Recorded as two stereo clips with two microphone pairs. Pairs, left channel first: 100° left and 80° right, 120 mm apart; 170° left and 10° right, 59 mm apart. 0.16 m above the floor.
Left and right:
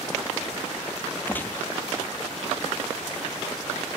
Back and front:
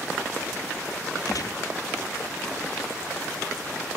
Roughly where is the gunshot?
Behind.